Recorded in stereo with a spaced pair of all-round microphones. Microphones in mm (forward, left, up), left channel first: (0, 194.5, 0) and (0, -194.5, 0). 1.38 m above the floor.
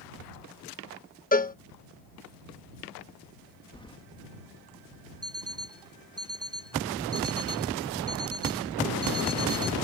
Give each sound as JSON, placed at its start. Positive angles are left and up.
{"t": 1.3, "sound": "a cowbell", "side_deg": 20}
{"t": 3.7, "sound": "keys jangling", "side_deg": 10}
{"t": 5.2, "sound": "an alarm clock", "side_deg": -35}